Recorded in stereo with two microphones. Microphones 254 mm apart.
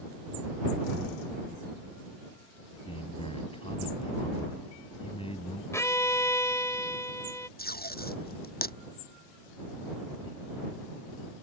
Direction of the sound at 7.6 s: 35° left (ahead or behind).